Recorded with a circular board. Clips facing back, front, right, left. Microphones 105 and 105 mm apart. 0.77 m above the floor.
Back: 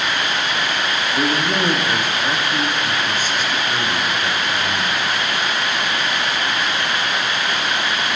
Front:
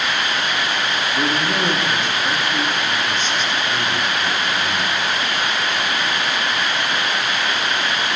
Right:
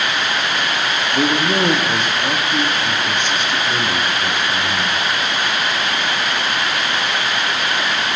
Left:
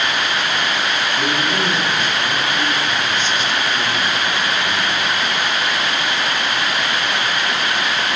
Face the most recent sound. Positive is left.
turn(degrees=-100)